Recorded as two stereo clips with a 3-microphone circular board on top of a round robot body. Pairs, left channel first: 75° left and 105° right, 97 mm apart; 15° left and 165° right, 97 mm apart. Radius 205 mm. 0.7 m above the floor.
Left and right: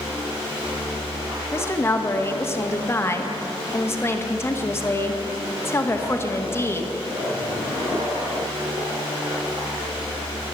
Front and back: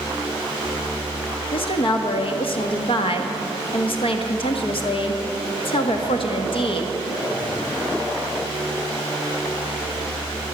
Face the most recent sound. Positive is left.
turn(degrees=15)